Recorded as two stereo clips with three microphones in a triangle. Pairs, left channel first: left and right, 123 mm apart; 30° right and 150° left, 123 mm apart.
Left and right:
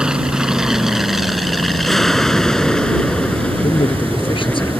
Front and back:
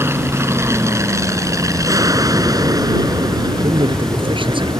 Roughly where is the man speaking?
Behind left.